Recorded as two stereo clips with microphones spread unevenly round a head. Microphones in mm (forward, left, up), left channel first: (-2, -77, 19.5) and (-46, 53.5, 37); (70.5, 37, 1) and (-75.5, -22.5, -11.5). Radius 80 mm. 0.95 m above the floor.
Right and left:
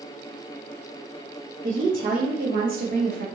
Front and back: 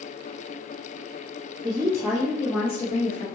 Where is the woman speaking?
140° left, 1.1 m; by 3.2 s 80° left, 1.0 m.